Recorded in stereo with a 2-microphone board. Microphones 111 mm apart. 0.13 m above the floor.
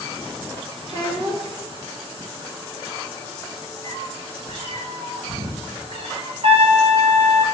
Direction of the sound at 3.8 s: 75° right (ahead or behind).